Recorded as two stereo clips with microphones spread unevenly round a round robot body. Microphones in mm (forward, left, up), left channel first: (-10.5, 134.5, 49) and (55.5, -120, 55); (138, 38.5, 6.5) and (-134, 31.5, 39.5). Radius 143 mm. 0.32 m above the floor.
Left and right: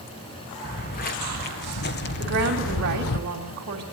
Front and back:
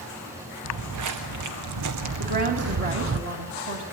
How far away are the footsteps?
About 2.5 m.